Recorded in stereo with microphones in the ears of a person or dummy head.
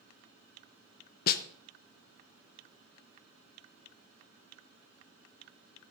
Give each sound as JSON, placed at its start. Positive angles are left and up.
{"t": 1.3, "sound": "a snare drum", "side_deg": 50, "distance_m": 0.8}